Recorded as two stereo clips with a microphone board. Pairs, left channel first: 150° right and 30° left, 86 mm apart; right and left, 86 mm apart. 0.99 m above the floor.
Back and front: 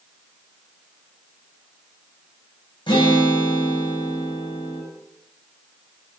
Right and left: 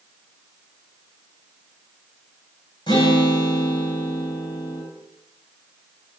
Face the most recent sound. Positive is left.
turn(degrees=-120)